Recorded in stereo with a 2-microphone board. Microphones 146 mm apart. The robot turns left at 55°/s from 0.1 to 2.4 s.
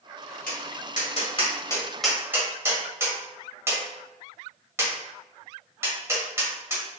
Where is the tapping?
85° left, 1.7 m; by 7.0 s 20° right (ahead or behind), 1.7 m.